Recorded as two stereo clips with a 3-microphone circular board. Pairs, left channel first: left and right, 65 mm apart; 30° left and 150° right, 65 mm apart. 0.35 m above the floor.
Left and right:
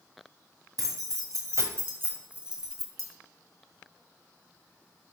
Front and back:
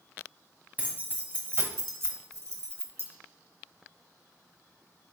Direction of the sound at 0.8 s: 90° right.